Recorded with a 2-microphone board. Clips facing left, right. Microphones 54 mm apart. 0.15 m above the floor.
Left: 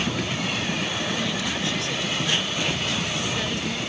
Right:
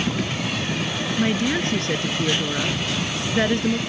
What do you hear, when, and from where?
1.2 s a woman speaking: 40° right (ahead or behind)